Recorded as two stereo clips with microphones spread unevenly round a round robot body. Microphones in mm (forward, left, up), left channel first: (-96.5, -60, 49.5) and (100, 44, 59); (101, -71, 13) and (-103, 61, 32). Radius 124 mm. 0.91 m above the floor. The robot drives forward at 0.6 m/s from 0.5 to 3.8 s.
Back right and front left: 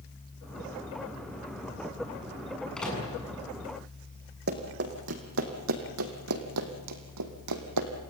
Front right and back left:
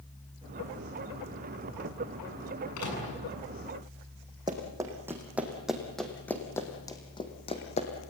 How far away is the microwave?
About 7.5 m.